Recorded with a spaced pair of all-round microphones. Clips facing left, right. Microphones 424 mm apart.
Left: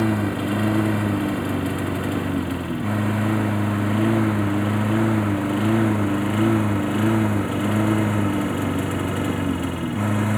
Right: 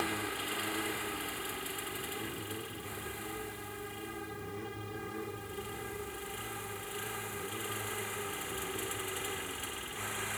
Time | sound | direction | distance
0.0 | a lawn mower | 65° left (ahead or behind) | ?